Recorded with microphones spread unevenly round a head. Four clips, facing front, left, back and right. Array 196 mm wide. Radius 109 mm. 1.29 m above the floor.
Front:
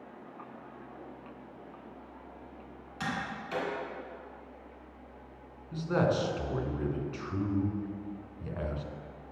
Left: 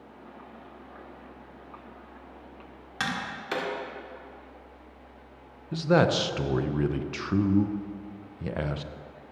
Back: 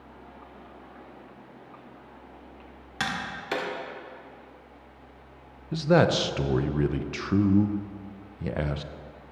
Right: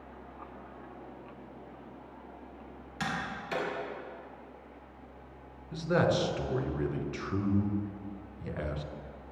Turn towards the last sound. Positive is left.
turn(degrees=155)